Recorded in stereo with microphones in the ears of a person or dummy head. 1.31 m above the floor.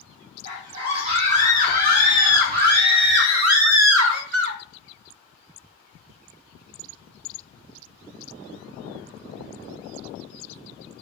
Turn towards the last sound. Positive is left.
turn(degrees=-55)  # may be behind; listen again after turning